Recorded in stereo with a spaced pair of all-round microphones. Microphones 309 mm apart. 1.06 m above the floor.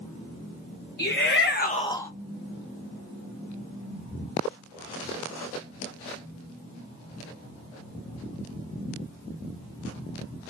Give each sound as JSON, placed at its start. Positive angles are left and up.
{"t": 1.0, "sound": "a shout", "side_deg": 35, "distance_m": 1.0}